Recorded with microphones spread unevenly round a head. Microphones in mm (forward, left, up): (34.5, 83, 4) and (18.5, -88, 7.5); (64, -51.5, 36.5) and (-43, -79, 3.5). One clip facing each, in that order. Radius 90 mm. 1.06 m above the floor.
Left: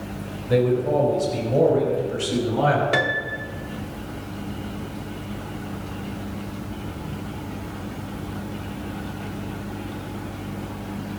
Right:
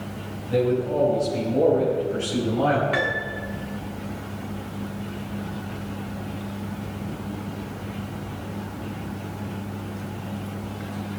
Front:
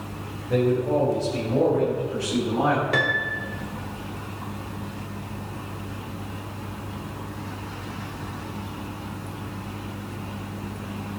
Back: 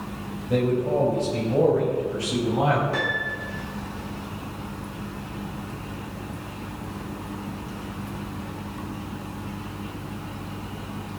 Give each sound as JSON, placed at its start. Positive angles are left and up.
{"t": 0.5, "sound": "a man speaking", "azimuth_deg": 110, "distance_m": 4.0}
{"t": 2.9, "sound": "a piano", "azimuth_deg": 45, "distance_m": 1.2}